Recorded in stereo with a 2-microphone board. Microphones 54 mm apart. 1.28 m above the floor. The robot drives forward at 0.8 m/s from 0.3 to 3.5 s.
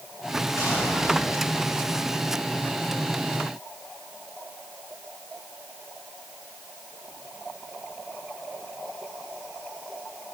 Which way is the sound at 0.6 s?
80° left.